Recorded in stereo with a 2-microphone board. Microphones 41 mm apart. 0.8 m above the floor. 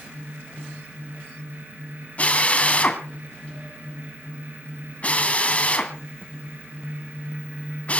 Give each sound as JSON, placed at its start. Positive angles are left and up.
{"t": 2.2, "sound": "a drill", "side_deg": 35, "distance_m": 2.5}